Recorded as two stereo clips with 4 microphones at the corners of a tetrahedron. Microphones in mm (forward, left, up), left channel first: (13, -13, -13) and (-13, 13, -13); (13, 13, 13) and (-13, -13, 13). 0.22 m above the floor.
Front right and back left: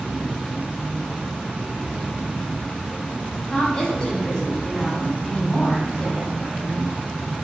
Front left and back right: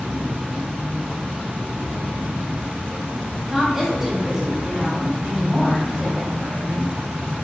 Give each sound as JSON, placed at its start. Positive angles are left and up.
{"t": 0.0, "sound": "an insect", "azimuth_deg": -160, "distance_m": 1.0}
{"t": 3.5, "sound": "a woman speaking", "azimuth_deg": -70, "distance_m": 1.3}